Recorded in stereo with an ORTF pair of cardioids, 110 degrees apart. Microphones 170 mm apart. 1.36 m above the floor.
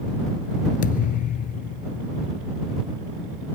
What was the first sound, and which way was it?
A thud, 65° left.